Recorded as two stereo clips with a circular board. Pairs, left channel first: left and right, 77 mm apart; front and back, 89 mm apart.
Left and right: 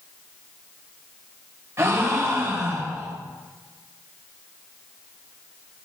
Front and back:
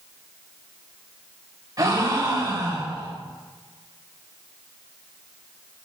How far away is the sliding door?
No sliding door in this recording.